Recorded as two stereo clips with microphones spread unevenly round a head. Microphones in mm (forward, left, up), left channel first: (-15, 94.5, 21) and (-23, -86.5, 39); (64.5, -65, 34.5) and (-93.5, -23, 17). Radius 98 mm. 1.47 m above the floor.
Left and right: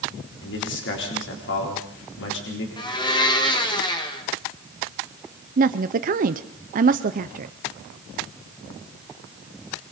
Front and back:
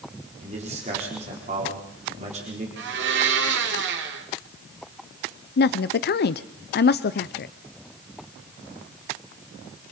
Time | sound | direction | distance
0.4 | a man speaking | 105° left | 4 m
2.8 | a blender | 155° left | 2 m
5.6 | a woman speaking | 40° right | 0.6 m